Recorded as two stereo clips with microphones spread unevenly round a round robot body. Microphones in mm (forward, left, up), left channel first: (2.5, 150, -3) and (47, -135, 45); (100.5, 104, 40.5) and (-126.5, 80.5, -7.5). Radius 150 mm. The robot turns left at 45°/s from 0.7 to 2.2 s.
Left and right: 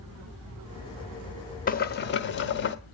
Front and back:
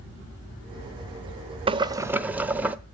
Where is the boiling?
140° left, 0.9 m; by 2.8 s 115° left, 0.9 m.